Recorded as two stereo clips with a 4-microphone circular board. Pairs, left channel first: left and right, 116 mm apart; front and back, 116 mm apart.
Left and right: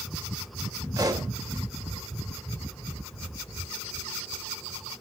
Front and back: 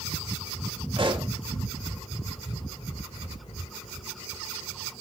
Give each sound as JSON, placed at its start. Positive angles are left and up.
{"t": 1.0, "sound": "a pop", "azimuth_deg": -140, "distance_m": 2.5}